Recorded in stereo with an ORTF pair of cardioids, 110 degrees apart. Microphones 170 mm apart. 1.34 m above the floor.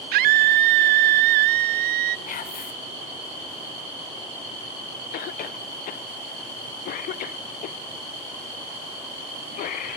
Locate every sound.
0.1 s a scream: 70° right, 0.6 m
2.3 s whispering: 55° left, 1.6 m
5.1 s a cough: 60° left, 0.6 m